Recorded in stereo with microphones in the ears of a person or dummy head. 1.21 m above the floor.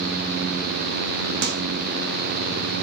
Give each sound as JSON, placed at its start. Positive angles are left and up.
{"t": 1.4, "sound": "a microwave", "side_deg": -60, "distance_m": 1.4}